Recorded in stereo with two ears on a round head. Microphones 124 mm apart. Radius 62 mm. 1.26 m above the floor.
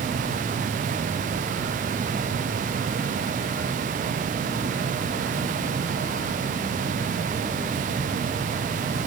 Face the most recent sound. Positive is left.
No sound to turn to.